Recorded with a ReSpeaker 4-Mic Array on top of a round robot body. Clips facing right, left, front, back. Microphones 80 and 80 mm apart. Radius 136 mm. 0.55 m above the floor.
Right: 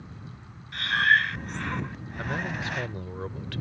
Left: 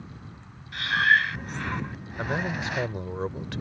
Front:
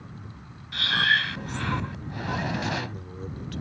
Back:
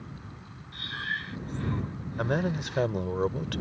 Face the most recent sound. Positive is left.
turn(degrees=160)